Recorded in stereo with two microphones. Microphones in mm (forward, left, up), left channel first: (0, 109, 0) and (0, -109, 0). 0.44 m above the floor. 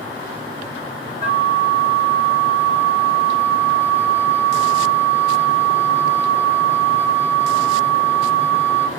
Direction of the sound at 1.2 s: 25° right (ahead or behind).